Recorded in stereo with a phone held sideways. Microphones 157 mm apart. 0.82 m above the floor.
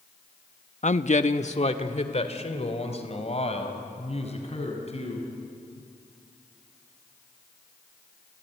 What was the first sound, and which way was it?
A man speaking, 50° left (ahead or behind).